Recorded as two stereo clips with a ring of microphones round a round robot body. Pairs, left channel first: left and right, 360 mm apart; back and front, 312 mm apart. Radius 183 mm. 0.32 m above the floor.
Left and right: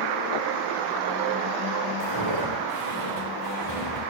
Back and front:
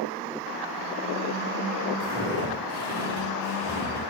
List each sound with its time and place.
2.0 s footsteps: 120° right, 1.7 m; by 4.0 s 130° right, 3 m